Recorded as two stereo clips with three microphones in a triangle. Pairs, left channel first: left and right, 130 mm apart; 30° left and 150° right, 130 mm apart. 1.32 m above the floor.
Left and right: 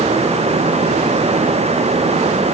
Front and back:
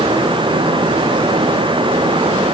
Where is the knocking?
No knocking in this recording.